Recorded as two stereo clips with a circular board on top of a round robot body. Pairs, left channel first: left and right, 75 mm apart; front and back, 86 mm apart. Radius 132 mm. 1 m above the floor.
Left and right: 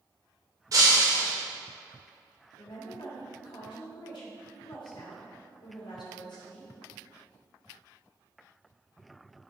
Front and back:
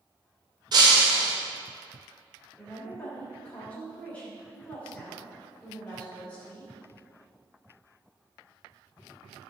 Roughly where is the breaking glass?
Behind right.